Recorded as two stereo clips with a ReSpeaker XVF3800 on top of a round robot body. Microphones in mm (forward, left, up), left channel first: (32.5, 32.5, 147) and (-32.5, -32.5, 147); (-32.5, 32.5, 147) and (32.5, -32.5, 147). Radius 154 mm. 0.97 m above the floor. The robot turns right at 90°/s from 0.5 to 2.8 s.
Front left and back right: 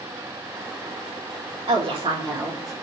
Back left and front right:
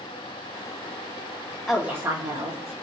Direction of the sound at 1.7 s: 140° right.